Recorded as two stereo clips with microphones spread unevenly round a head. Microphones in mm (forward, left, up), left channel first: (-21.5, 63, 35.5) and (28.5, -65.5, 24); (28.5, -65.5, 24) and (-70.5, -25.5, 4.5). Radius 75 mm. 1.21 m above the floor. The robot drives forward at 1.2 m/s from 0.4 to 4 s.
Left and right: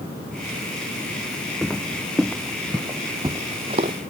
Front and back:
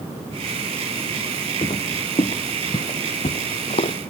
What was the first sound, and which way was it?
Footsteps, 25° left.